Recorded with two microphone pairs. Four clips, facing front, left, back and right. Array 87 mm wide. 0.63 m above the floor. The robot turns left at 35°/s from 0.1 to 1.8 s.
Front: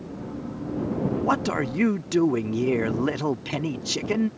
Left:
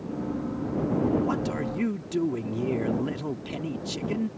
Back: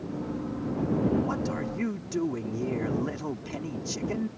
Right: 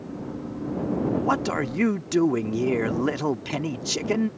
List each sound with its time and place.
1.1 s a man speaking: 30° right; by 4.3 s 55° right